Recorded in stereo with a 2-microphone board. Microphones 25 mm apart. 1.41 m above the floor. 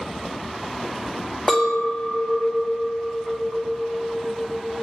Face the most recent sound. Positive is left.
turn(degrees=20)  # may be behind; listen again after turning